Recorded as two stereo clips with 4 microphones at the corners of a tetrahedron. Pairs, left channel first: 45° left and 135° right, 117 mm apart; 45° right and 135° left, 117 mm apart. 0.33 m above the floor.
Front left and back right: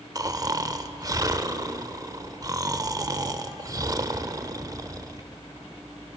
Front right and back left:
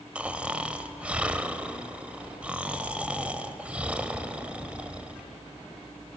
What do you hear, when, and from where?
0.1 s snoring: 155° right, 0.5 m